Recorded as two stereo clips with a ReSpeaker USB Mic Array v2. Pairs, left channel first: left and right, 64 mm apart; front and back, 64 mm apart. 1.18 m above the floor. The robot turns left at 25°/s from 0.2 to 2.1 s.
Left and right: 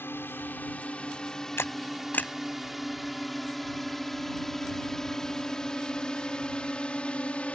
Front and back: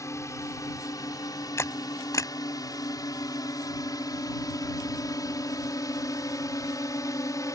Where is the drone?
35° left; by 7.6 s 20° left.